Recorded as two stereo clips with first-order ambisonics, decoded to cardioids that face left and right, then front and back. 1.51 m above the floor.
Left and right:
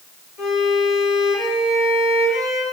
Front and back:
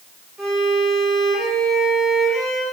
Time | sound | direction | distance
0.4 | a violin | 95° left | 0.9 m